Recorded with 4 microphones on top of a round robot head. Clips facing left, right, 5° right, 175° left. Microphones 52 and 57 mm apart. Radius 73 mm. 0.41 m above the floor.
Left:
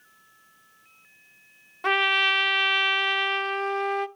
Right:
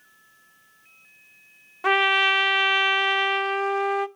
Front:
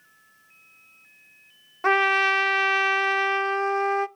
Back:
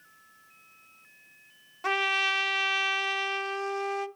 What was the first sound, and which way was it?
A trumpet, 5° right.